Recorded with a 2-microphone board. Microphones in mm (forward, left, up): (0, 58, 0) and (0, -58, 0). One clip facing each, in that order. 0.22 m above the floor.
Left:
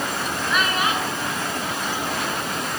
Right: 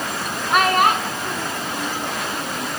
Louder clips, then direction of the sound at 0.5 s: Right 8 dB; 55° right (ahead or behind).